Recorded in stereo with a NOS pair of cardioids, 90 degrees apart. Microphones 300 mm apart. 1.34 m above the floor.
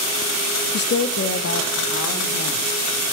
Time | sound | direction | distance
0.7 | a woman speaking | 35° left | 0.7 m